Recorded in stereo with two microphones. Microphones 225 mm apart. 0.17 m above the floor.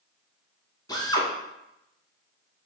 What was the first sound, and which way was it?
A drill, 20° left (ahead or behind).